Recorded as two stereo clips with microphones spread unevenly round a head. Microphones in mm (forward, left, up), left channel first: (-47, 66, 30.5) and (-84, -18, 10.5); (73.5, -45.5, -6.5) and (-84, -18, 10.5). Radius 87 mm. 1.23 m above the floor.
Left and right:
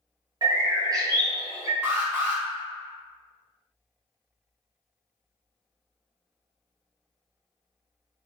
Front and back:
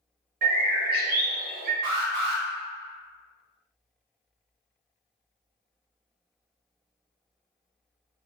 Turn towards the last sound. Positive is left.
turn(degrees=170)